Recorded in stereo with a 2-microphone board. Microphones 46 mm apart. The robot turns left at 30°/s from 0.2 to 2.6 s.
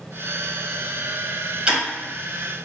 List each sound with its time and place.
1.7 s ticking: 20° right (ahead or behind), 1.1 m; by 1.8 s 15° right (ahead or behind), 1.1 m